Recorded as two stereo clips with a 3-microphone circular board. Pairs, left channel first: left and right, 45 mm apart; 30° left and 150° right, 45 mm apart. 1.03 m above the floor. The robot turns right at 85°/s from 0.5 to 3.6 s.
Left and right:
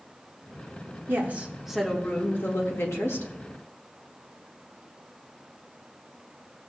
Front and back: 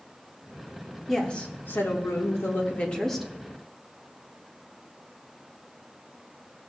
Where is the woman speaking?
60° right, 1.6 m; by 3.3 s 130° left, 1.6 m.